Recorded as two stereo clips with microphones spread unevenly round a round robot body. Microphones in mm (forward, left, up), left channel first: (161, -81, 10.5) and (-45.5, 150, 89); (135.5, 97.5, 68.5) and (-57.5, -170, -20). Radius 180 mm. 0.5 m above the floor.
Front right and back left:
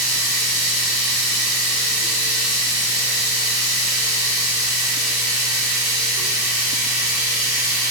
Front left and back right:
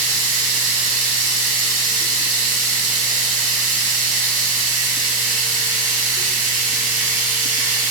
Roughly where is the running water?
Right.